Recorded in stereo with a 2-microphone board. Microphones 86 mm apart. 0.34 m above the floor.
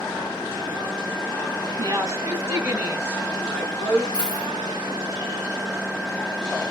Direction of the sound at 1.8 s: 45° right (ahead or behind).